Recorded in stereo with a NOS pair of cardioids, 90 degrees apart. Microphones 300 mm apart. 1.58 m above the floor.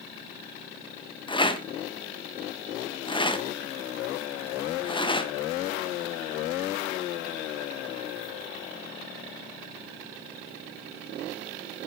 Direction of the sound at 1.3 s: 15° left.